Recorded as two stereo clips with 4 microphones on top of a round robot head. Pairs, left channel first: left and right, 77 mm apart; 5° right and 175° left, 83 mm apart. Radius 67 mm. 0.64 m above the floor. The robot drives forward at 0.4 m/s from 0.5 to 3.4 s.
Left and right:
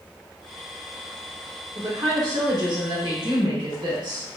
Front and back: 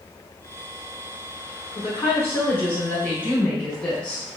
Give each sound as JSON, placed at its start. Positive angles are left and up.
{"t": 1.8, "sound": "a woman speaking", "azimuth_deg": -60, "distance_m": 2.0}